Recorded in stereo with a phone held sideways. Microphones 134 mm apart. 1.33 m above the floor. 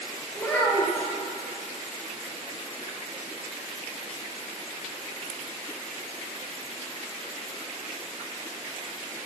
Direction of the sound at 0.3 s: 10° left (ahead or behind).